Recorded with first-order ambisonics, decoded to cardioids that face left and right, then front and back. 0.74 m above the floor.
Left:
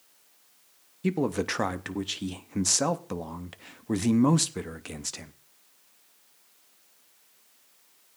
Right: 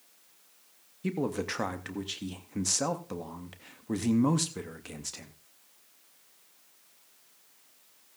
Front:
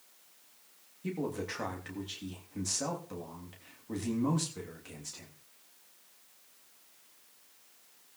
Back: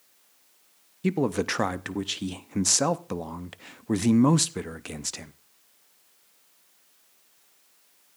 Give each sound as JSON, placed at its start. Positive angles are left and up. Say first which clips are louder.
{"t": 1.0, "sound": "a man speaking", "louder": "left 4 dB, back 10 dB", "azimuth_deg": 160, "distance_m": 0.6}